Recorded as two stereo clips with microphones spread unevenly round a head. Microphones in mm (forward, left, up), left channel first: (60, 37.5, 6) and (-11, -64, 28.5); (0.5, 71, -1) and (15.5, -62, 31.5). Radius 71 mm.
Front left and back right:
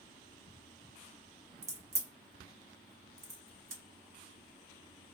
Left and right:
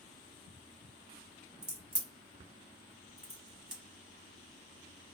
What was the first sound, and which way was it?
A crack, 135° right.